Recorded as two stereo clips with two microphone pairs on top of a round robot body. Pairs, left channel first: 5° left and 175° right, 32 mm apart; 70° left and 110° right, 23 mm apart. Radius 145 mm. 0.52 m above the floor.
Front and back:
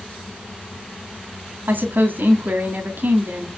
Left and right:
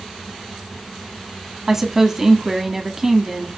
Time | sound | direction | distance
1.7 | a woman speaking | 175° right | 1.8 m